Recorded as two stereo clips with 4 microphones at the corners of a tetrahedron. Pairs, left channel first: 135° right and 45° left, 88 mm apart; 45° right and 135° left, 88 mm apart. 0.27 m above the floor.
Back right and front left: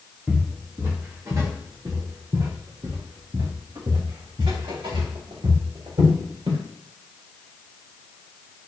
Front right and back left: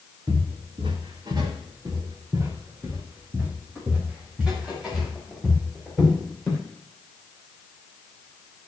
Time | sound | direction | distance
0.3 | footsteps | 120° left | 4 m